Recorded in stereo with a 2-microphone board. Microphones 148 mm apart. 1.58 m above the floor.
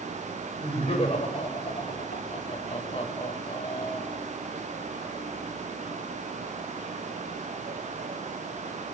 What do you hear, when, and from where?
0.6 s laughter: 40° left (ahead or behind), 7.5 m; by 4.3 s 45° left (ahead or behind), 9 m